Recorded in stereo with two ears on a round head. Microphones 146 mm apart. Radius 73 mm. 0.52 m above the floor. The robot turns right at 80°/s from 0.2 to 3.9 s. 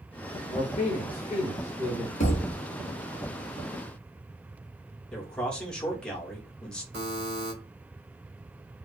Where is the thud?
125° left, 1.0 m; by 2.6 s 160° left, 1.0 m.